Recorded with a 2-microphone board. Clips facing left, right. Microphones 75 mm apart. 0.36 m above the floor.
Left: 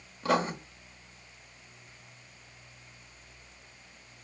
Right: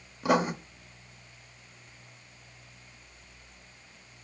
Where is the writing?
10° right (ahead or behind), 0.6 m.